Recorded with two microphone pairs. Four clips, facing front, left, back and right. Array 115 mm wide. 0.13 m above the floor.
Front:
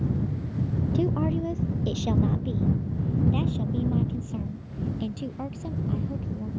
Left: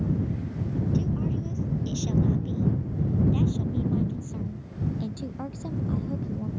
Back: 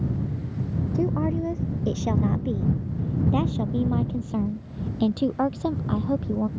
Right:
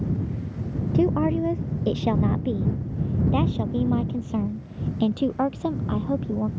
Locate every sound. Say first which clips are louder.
0.9 s a woman speaking: right 13 dB, back 2 dB; 95° right; by 6.5 s 135° right